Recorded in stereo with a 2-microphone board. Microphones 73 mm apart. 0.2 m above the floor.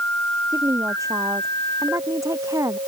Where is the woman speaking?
50° right (ahead or behind).